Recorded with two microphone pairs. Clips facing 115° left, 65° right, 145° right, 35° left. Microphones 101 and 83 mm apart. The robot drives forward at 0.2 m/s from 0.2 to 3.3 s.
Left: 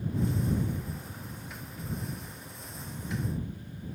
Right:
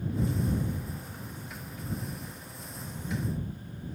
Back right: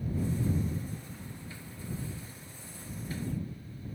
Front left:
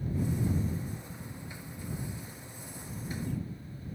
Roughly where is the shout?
I don't hear a shout.